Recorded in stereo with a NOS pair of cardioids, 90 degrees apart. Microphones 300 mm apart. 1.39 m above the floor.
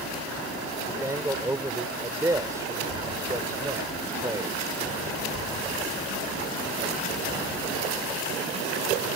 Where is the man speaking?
10° right.